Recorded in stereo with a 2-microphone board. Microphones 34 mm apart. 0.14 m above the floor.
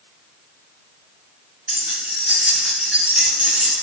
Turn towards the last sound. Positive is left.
turn(degrees=-15)  # may be behind; listen again after turning